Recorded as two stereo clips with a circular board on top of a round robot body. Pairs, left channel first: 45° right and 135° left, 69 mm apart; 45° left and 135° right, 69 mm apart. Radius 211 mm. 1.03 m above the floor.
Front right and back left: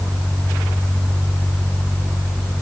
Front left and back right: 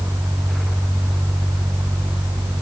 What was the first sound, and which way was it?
Only background noise.